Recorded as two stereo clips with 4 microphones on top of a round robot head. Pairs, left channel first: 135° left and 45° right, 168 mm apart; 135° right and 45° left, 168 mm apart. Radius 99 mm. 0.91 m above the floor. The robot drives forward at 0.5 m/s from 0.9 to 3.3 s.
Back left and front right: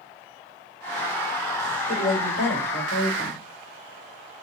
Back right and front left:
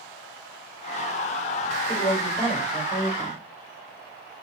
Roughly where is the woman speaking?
Behind.